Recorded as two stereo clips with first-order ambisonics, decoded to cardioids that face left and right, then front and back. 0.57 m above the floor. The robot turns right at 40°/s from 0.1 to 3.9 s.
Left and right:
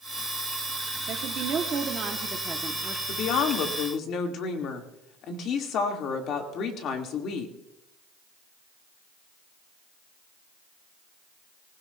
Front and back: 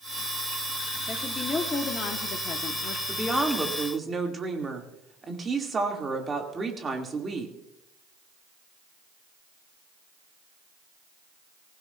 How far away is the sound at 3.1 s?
About 1.6 m.